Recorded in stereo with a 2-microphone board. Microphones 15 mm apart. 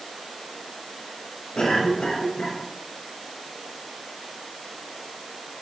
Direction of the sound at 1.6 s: 70° left (ahead or behind).